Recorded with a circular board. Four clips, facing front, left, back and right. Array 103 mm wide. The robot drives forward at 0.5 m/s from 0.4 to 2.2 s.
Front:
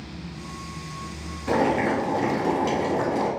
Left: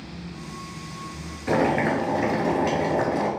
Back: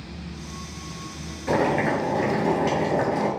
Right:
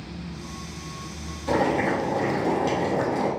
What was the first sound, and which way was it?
Boiling, 105° left.